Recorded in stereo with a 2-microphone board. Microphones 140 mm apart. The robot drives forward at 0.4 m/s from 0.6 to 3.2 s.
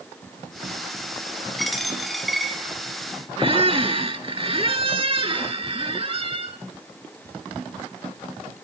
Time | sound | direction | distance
1.6 | a dropped coin | centre (ahead or behind) | 0.8 m
3.4 | a squeak | 40° right (ahead or behind) | 0.6 m